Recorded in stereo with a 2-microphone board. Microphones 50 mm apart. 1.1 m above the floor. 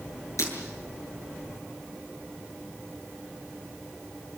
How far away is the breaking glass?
About 8 m.